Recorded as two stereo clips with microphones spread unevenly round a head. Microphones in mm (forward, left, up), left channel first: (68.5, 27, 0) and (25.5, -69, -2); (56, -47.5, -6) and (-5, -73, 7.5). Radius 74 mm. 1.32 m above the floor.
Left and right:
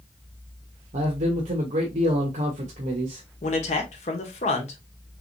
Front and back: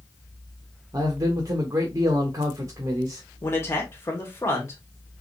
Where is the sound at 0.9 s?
120° right, 0.9 m.